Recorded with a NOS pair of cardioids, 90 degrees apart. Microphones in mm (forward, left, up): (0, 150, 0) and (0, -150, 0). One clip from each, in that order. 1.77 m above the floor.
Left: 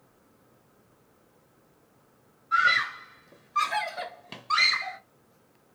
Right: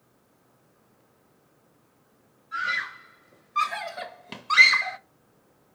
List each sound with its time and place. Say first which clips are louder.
2.5 s a scream: left 6 dB; 50° left, 1.0 m; by 5.0 s 40° right, 0.8 m